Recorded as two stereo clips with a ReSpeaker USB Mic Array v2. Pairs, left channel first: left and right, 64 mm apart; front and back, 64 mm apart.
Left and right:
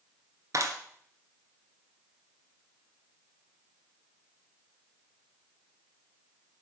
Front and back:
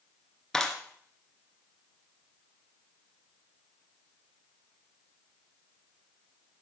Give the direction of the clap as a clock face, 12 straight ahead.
3 o'clock.